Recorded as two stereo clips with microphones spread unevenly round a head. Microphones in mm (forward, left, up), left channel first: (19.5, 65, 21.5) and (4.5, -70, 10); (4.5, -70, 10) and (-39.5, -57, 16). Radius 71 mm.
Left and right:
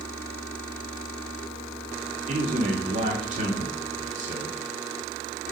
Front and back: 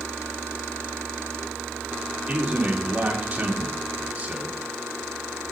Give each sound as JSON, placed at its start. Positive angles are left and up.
{"t": 2.3, "sound": "a man speaking", "azimuth_deg": -140, "distance_m": 2.5}